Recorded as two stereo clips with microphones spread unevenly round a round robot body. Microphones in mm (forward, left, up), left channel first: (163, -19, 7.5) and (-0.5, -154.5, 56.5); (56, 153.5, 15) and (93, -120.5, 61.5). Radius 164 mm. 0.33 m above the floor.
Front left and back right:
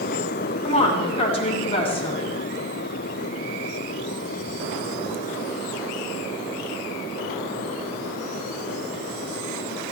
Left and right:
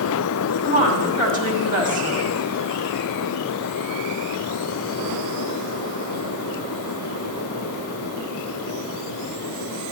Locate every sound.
0.6 s a woman speaking: 20° right, 2.5 m